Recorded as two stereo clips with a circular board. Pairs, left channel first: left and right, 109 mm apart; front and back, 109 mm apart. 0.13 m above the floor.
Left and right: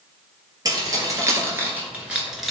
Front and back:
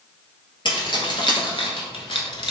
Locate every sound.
0.7 s keys jangling: 40° right, 1.7 m; by 2.5 s straight ahead, 1.2 m